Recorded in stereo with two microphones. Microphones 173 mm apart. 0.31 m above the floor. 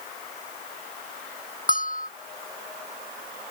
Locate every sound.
1.7 s a bell: 55° left (ahead or behind)